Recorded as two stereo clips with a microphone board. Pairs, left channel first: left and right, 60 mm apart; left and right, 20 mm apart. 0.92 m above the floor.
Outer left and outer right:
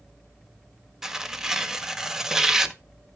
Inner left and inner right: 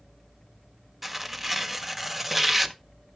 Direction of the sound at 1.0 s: 10° right (ahead or behind).